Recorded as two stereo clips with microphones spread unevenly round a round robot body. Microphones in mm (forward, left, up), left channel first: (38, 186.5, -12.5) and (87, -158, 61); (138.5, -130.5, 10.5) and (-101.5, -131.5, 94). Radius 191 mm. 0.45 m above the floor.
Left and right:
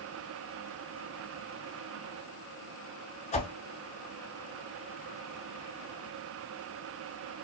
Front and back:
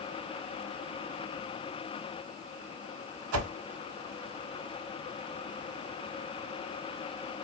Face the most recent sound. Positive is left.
turn(degrees=175)